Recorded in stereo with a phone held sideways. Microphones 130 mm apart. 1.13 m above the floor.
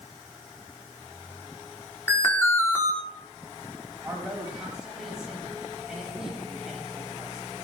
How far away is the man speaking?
About 8 m.